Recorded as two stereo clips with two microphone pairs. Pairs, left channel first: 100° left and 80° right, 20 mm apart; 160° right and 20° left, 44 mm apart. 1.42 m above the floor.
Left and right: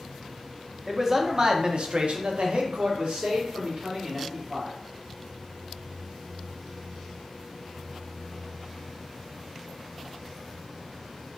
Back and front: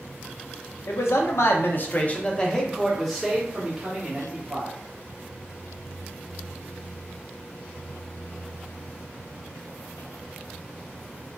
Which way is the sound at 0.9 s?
155° right.